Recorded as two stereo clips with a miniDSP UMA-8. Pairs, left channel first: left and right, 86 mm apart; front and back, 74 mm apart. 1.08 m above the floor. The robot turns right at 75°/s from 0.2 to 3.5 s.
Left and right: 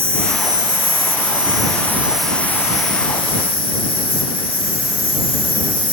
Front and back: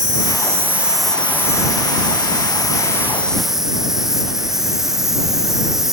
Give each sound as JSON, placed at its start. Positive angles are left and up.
{"t": 0.0, "sound": "an insect", "azimuth_deg": -150}